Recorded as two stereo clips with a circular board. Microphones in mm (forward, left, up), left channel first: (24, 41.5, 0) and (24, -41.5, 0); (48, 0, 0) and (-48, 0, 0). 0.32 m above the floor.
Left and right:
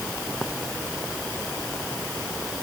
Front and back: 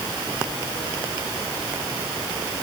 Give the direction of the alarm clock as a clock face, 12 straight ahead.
No alarm clock in this recording.